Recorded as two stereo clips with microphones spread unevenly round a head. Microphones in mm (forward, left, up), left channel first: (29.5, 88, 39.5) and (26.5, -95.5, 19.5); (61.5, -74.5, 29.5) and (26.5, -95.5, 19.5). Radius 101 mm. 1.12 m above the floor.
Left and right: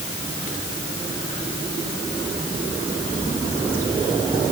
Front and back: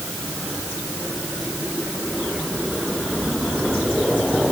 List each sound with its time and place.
Only background noise.